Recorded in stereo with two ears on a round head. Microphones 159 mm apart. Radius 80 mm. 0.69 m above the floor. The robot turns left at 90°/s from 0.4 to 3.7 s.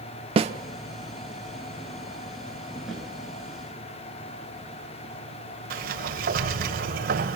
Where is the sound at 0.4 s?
30° right (ahead or behind), 1.0 m; by 0.5 s 40° right (ahead or behind), 1.0 m.